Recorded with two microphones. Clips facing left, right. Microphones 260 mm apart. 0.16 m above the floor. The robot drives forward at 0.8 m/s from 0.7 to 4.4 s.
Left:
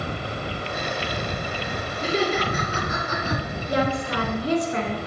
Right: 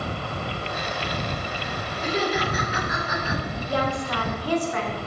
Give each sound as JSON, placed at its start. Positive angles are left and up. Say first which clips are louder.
{"t": 2.0, "sound": "laughter", "louder": "left 2 dB", "side_deg": 25, "distance_m": 3.0}
{"t": 3.7, "sound": "a woman speaking", "louder": "left 3 dB", "side_deg": 20, "distance_m": 1.8}